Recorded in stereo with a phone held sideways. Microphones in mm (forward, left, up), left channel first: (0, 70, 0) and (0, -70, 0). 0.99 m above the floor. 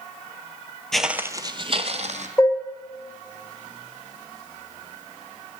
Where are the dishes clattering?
20° left (ahead or behind), 3 m.